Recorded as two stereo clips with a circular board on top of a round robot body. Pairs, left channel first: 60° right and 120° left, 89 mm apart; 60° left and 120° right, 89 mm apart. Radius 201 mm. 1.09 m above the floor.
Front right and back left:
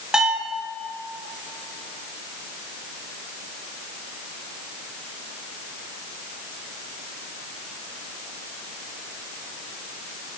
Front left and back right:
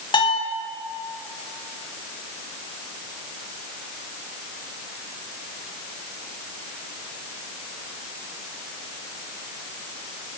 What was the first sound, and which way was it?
A bell, 40° left.